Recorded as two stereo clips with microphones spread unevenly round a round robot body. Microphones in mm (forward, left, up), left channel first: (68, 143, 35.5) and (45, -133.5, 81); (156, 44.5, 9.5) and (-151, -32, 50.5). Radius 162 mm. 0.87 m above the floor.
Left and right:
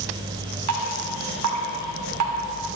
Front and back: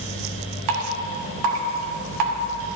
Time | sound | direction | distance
0.7 | dripping | 140° right | 1.3 m